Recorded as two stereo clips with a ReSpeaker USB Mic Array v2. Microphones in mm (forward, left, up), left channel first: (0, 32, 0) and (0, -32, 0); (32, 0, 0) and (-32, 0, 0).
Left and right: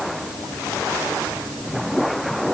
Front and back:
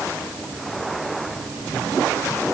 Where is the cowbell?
No cowbell in this recording.